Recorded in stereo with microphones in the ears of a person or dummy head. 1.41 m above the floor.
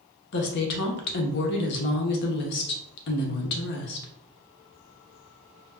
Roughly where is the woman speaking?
Left.